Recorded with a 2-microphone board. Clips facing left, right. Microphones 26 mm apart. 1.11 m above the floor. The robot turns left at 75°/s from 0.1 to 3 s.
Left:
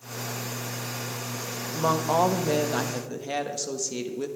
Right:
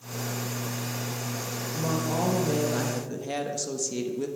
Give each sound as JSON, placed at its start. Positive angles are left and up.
{"t": 1.7, "sound": "a woman speaking", "azimuth_deg": 110, "distance_m": 1.2}